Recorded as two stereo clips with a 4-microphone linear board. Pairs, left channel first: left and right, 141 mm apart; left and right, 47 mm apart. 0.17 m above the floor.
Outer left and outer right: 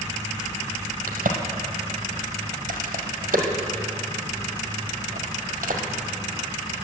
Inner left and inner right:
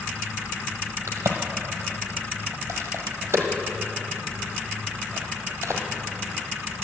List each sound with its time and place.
1.1 s a crack: 80° right, 1.4 m